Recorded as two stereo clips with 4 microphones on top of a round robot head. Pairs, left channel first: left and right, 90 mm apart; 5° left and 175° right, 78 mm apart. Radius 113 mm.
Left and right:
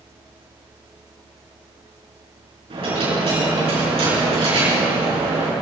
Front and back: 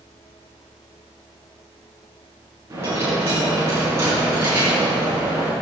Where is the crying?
No crying in this recording.